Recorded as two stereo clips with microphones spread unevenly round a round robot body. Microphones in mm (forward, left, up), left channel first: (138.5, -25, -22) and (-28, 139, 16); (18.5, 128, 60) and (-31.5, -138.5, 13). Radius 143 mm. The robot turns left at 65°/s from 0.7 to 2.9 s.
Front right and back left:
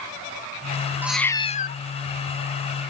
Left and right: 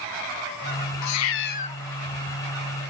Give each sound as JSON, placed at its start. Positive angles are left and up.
{"t": 1.0, "sound": "a cat meowing", "azimuth_deg": 50, "distance_m": 0.8}